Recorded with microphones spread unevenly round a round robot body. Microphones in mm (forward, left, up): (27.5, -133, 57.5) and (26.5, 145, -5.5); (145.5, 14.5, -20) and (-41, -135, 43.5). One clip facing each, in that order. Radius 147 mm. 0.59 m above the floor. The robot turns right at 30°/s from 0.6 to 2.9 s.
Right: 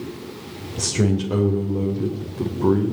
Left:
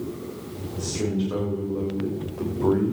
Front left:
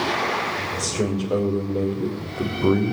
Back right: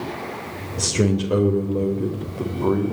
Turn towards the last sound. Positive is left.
turn(degrees=-20)